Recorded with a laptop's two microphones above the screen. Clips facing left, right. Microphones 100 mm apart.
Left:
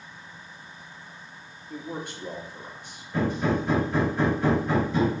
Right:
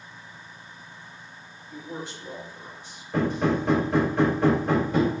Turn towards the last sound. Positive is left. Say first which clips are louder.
# right 1 dB
turn(degrees=-70)  # may be behind; listen again after turning